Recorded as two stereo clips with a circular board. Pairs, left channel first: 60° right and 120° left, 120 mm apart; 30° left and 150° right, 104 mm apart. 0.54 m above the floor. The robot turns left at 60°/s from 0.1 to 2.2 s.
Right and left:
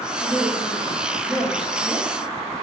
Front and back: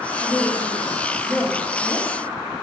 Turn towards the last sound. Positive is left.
turn(degrees=-90)